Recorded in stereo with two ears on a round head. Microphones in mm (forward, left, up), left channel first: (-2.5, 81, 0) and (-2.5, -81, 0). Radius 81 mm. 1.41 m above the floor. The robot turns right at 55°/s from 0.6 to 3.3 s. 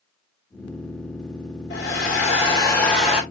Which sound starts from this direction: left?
A hair dryer, at 1.7 s.